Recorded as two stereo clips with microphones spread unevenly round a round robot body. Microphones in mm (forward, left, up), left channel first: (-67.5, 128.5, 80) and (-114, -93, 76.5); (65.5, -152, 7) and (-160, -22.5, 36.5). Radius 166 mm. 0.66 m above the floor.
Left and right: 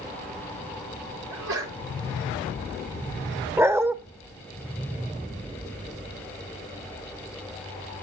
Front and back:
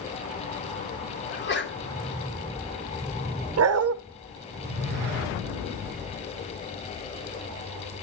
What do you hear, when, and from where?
1.3 s a sneeze: 75° right, 3.5 m
3.6 s a dog barking: straight behind, 0.9 m